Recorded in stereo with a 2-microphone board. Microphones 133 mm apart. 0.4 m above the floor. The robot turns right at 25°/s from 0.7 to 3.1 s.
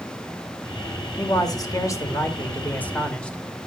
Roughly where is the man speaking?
Behind left.